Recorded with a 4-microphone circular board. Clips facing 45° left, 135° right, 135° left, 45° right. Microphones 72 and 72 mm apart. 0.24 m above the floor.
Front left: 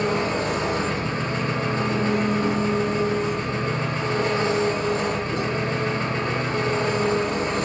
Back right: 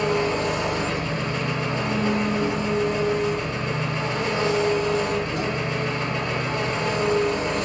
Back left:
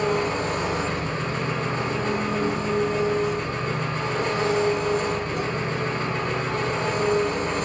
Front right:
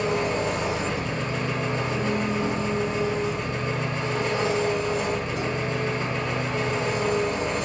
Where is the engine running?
100° left, 0.8 m.